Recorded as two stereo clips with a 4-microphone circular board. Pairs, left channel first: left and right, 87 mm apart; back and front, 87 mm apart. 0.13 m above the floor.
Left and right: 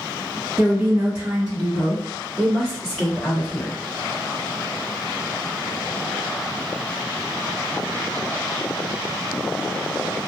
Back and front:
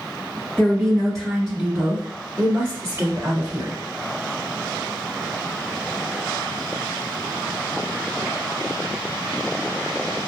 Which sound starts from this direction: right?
A woman speaking, at 0.6 s.